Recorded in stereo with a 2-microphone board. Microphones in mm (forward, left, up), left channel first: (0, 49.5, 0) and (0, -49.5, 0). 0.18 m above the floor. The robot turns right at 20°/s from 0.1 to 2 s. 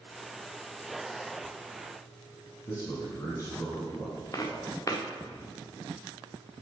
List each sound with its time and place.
2.7 s a man speaking: 30° left (ahead or behind), 2.0 m
4.3 s footsteps: 35° left (ahead or behind), 1.1 m